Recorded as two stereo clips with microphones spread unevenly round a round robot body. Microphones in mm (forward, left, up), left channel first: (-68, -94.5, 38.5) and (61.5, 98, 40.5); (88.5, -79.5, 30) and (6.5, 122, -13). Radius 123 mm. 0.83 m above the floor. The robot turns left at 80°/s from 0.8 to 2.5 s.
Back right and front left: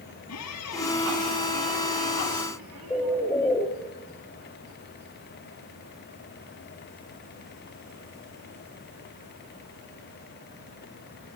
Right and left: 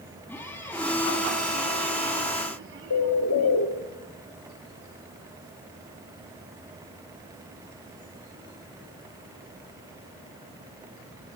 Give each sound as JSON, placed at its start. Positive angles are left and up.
{"t": 0.3, "sound": "a squeak", "azimuth_deg": -145, "distance_m": 2.0}
{"t": 2.9, "sound": "a bird", "azimuth_deg": -45, "distance_m": 1.8}